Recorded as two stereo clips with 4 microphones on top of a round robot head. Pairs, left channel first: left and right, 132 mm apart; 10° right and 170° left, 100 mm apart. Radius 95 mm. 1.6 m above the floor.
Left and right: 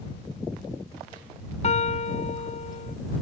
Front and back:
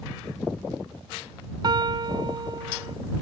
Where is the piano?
125° left.